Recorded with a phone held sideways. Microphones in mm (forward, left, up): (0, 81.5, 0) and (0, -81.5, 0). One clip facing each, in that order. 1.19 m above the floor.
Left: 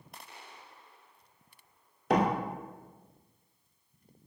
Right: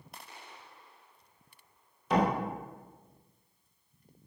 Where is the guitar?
No guitar in this recording.